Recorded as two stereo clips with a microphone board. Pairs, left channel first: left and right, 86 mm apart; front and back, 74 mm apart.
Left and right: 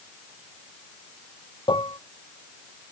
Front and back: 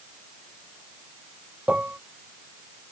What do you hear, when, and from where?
1.7 s dishes clattering: 110° left